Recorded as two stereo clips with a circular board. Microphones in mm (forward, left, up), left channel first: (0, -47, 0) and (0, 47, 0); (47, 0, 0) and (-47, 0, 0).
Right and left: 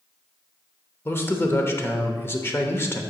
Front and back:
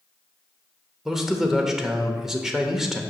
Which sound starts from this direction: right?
A man speaking, at 1.1 s.